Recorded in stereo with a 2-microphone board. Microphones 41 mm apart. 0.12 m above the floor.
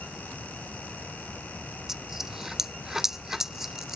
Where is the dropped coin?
10° right (ahead or behind).